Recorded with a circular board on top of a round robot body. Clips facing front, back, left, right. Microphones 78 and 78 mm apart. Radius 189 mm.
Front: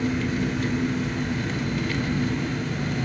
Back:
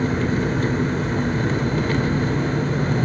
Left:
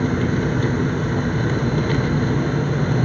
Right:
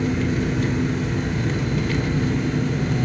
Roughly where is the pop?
I don't hear a pop.